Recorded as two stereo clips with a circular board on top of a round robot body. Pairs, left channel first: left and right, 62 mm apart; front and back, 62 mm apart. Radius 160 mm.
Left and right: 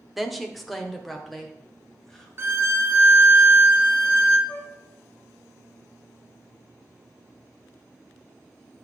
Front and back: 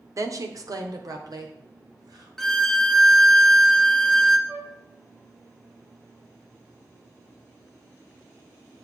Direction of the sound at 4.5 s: 145° left.